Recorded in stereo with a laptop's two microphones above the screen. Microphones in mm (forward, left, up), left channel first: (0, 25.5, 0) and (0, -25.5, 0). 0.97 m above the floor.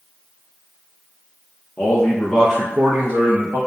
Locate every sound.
1.8 s a man speaking: 45° left (ahead or behind), 0.9 m; by 3.6 s 70° right (ahead or behind), 1.0 m